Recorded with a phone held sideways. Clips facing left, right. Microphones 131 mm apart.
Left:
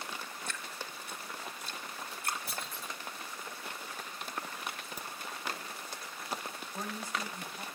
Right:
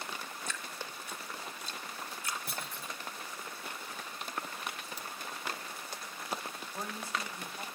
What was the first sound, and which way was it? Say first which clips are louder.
Dripping: even; 60° left (ahead or behind).